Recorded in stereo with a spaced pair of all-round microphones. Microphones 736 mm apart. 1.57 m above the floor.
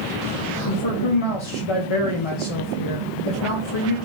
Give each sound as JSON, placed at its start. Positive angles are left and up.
{"t": 0.7, "sound": "a man speaking", "side_deg": 45, "distance_m": 0.6}